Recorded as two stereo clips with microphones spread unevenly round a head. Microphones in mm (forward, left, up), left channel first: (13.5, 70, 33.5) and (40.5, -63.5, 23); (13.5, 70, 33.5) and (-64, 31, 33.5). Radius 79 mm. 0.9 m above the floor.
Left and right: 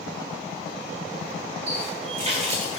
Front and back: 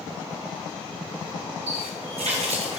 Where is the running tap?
135° right, 2.5 m.